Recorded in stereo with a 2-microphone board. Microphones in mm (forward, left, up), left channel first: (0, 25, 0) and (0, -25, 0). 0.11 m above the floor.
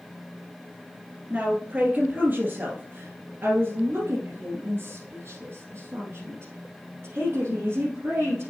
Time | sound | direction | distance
1.3 | a woman speaking | 20° right (ahead or behind) | 1.9 m